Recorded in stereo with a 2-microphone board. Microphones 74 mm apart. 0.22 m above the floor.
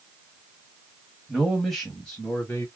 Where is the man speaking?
5° right (ahead or behind), 1.2 m; by 2.6 s 25° left (ahead or behind), 1.2 m.